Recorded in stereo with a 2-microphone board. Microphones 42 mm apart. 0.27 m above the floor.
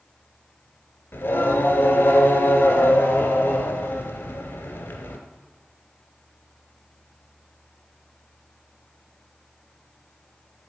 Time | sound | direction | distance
1.1 | singing | 60° left (ahead or behind) | 1.6 m